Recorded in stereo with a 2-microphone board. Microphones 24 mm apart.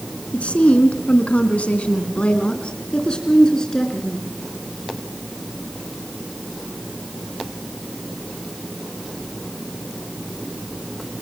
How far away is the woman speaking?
About 3 m.